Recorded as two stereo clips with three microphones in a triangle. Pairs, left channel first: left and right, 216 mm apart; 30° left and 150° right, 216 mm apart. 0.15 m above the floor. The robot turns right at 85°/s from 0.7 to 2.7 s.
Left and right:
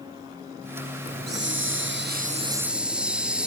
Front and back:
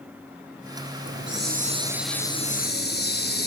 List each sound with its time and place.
1.1 s a hiss: 145° right, 1.4 m; by 3.5 s 5° right, 1.4 m